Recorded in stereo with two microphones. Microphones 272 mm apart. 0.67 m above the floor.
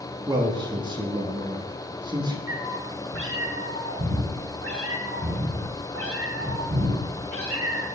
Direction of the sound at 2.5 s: 55° right (ahead or behind).